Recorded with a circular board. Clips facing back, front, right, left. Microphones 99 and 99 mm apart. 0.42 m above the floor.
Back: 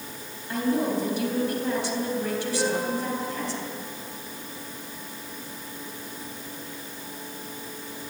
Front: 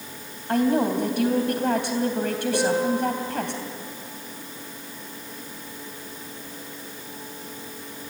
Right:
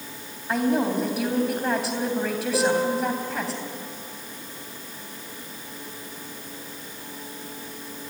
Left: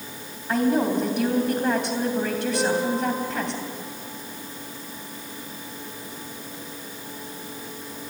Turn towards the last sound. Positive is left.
turn(degrees=-40)